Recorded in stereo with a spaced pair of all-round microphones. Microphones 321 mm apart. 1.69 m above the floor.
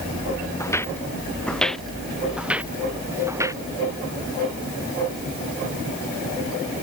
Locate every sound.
0.6 s footsteps: 10° left (ahead or behind); by 3.6 s 10° right (ahead or behind)